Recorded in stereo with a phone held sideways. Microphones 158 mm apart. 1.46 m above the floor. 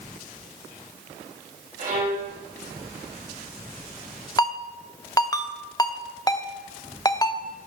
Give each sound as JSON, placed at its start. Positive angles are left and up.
{"t": 1.8, "sound": "a violin", "side_deg": -60, "distance_m": 3.5}
{"t": 4.4, "sound": "a ringtone", "side_deg": 25, "distance_m": 0.6}